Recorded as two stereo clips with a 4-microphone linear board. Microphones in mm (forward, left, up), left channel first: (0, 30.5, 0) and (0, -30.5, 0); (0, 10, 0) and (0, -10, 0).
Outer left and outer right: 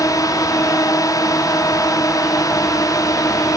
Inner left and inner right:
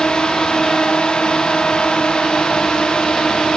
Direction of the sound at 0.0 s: 70° left (ahead or behind).